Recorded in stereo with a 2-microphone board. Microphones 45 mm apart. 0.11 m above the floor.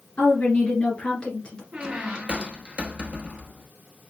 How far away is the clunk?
I don't hear a clunk.